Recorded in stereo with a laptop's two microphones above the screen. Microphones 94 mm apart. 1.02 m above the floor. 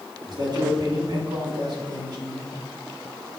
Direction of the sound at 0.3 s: 50° right (ahead or behind).